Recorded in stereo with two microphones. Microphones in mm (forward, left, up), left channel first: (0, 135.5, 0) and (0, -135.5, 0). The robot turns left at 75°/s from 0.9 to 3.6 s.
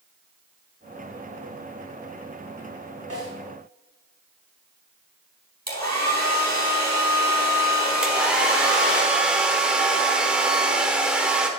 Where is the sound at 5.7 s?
70° right (ahead or behind), 4 m.